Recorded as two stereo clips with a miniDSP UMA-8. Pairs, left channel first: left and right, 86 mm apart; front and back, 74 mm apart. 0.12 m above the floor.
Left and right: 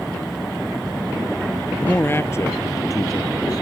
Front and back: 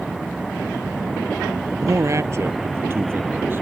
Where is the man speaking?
155° left; by 3.6 s 125° left.